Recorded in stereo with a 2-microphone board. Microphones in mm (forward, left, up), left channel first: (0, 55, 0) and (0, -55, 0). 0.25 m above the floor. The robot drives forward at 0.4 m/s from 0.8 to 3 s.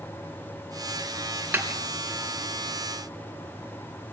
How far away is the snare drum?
About 3.5 m.